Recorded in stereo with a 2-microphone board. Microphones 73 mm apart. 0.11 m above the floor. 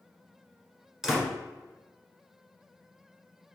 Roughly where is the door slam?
Centre.